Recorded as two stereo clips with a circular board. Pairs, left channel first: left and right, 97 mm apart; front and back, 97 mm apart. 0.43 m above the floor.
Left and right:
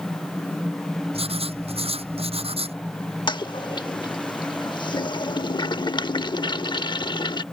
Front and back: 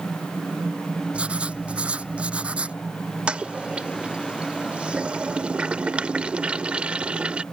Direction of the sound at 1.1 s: 105° right.